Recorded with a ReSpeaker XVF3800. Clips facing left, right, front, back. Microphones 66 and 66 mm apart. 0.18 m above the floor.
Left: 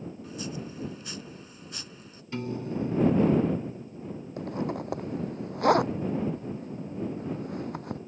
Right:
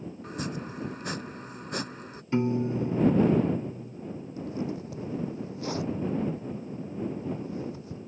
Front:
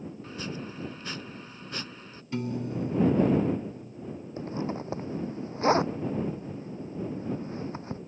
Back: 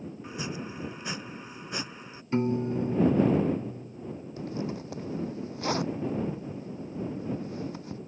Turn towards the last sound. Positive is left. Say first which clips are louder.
# left 2 dB, front 2 dB
turn(degrees=60)